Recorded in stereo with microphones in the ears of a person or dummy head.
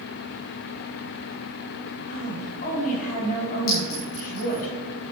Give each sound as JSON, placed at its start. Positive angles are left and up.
{"t": 2.1, "sound": "a woman speaking", "side_deg": 45, "distance_m": 3.0}
{"t": 3.7, "sound": "a clink", "side_deg": 45, "distance_m": 2.0}